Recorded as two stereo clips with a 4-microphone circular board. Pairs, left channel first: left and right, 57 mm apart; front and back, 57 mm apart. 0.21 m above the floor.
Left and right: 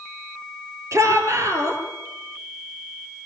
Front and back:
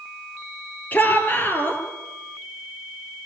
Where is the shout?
60° right, 5 m.